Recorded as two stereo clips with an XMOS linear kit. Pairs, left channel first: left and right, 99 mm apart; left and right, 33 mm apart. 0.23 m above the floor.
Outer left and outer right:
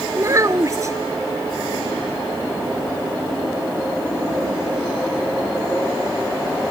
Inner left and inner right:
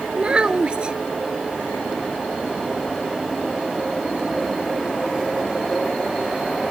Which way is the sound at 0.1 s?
35° right (ahead or behind).